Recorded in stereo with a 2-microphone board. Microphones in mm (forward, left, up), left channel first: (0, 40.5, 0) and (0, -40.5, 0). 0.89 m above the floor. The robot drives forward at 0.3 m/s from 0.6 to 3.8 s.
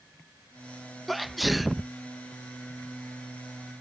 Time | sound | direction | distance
1.1 | a sneeze | centre (ahead or behind) | ?